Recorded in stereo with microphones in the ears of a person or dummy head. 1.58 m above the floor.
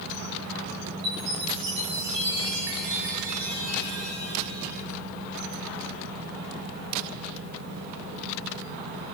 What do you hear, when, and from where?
1.0 s a chime: 65° right (ahead or behind), 5.5 m